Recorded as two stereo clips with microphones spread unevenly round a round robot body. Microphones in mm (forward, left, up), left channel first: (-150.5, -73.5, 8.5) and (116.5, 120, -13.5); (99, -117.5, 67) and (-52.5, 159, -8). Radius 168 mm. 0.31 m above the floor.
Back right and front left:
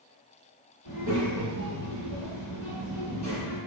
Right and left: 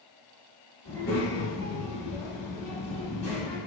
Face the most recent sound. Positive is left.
turn(degrees=-105)